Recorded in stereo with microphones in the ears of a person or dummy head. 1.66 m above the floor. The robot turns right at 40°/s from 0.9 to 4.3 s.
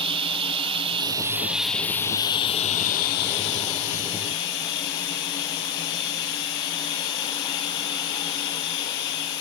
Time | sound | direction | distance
0.0 | running water | 30° right | 2.0 m